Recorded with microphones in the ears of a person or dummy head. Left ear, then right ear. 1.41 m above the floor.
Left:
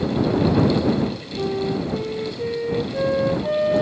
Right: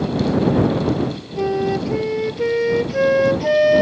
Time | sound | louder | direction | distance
1.4 | a flute | right 5 dB | 75° right (ahead or behind) | ?